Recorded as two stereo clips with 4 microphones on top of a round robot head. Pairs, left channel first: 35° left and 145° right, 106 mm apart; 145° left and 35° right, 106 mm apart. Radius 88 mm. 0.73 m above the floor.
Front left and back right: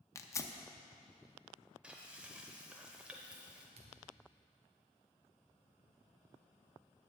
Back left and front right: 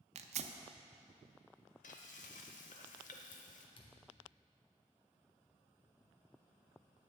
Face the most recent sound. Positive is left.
turn(degrees=-175)